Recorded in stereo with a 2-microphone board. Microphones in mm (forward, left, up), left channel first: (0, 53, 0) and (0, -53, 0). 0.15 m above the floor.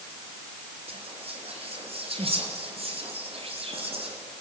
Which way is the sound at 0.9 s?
65° right (ahead or behind).